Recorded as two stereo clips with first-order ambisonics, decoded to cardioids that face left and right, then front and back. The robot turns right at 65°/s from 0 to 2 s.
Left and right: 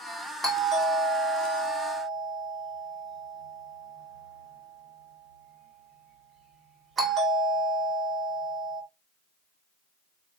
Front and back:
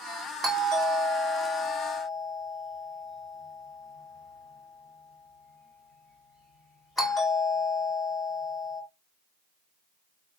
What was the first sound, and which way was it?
A doorbell, 150° right.